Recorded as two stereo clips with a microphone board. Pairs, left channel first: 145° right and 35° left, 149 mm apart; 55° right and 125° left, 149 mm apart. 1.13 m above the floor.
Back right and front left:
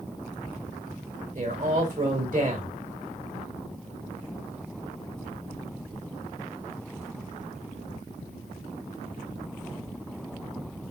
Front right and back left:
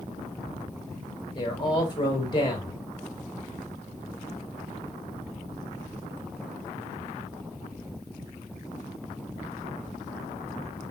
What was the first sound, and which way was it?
A man speaking, straight ahead.